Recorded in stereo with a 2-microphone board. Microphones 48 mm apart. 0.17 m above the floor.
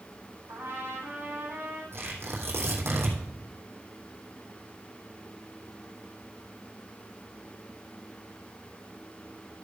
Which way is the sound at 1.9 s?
60° right (ahead or behind).